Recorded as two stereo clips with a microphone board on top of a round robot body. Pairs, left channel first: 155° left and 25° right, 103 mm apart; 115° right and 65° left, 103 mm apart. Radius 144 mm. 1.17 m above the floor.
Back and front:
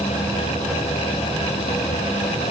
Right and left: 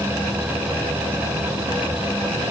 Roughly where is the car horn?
I don't hear a car horn.